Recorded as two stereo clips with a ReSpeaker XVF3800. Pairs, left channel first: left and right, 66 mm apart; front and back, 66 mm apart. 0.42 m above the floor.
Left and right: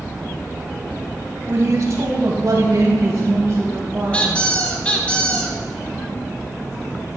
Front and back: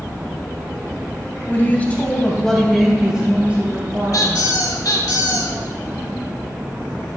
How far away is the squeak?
About 1.9 m.